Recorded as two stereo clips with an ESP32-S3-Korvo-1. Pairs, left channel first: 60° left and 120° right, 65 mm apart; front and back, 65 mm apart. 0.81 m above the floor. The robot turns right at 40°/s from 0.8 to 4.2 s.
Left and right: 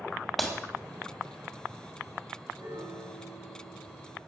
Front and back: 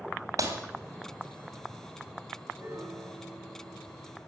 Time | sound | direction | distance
0.4 | breaking glass | 150° left | 2.5 m
2.6 | a piano | 145° right | 9.5 m